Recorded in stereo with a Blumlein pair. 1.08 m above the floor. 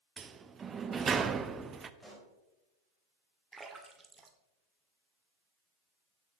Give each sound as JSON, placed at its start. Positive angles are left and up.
{"t": 0.2, "sound": "a sliding door", "azimuth_deg": -20, "distance_m": 0.7}
{"t": 2.0, "sound": "a pop", "azimuth_deg": 5, "distance_m": 3.0}
{"t": 3.5, "sound": "a splash", "azimuth_deg": -10, "distance_m": 1.9}